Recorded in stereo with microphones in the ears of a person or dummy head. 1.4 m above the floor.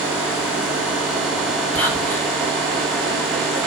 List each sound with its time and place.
1.8 s whispering: 10° left (ahead or behind), 1.4 m